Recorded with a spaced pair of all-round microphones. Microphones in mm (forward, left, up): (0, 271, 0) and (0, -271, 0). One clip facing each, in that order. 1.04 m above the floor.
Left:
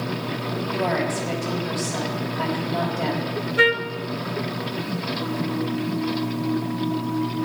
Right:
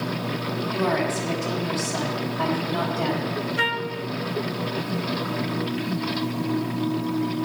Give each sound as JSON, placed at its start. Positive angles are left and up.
{"t": 0.7, "sound": "a woman speaking", "side_deg": -30, "distance_m": 5.5}
{"t": 3.6, "sound": "a trumpet", "side_deg": -25, "distance_m": 0.6}